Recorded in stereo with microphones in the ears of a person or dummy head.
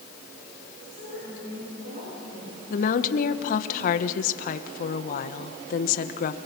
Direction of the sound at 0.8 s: 60° right (ahead or behind).